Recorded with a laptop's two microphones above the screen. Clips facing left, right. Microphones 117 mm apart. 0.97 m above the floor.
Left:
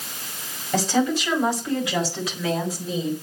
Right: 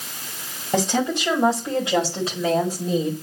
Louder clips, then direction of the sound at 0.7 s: Even; 20° right (ahead or behind).